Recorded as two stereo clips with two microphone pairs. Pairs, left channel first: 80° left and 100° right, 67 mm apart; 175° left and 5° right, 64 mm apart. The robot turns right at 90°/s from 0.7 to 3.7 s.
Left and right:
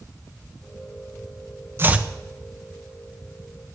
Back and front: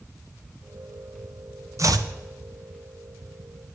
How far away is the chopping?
About 0.7 m.